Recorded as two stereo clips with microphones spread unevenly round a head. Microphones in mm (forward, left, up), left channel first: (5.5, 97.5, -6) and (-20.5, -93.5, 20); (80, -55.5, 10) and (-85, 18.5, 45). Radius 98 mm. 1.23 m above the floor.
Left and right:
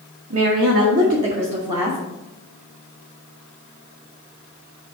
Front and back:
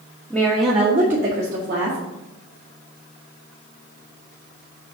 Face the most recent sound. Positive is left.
turn(degrees=-170)